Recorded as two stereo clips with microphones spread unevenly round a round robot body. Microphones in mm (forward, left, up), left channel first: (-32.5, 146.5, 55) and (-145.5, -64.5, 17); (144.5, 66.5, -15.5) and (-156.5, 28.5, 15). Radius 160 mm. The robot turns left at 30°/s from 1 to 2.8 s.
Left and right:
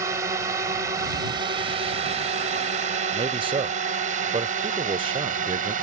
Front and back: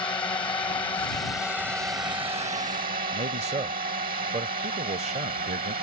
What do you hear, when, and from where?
0.0 s a drone: 65° right; by 5.8 s 115° right
3.1 s a man speaking: 110° right